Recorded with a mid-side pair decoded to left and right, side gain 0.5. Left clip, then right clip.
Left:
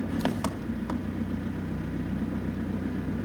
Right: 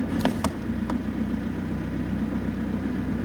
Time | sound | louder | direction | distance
0.0 | an engine running | right 4 dB | 20° right | 1.4 m